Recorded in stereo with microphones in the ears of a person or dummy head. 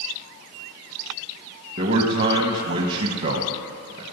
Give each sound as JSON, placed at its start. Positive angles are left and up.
{"t": 1.8, "sound": "a man speaking", "side_deg": -40, "distance_m": 1.4}